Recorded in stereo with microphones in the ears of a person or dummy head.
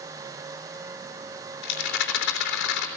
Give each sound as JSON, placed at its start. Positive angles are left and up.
{"t": 1.6, "sound": "a rattle", "side_deg": 65, "distance_m": 3.0}